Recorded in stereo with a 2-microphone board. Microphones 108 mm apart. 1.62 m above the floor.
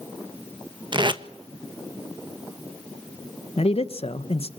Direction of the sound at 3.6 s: 65° left (ahead or behind).